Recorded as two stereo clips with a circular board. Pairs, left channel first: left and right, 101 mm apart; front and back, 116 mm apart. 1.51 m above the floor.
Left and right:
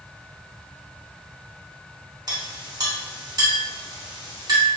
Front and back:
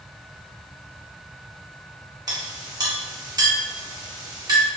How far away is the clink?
About 0.7 m.